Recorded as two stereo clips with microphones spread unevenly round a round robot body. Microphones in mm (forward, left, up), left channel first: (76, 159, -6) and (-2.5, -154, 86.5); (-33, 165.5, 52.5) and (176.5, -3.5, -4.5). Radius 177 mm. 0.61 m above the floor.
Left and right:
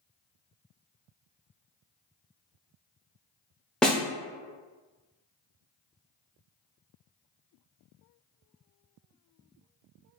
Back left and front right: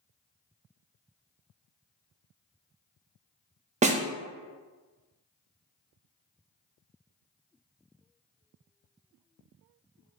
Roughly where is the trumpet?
I don't hear a trumpet.